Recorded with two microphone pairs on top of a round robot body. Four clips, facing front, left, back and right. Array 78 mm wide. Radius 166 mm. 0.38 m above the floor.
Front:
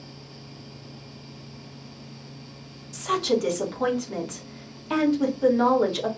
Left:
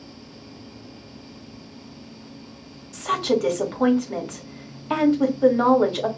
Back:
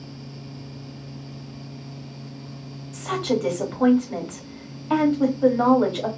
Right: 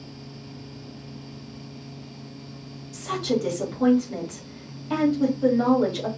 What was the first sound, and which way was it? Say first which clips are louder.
A woman speaking: left 4 dB, even; 110° left.